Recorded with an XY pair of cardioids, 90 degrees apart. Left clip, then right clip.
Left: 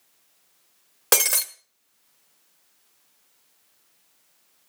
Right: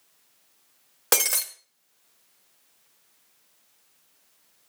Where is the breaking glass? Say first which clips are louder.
Left 2 dB; 15° left, 1.3 m.